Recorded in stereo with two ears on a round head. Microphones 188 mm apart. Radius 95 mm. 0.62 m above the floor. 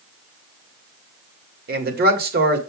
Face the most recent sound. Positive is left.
turn(degrees=-45)  # may be behind; listen again after turning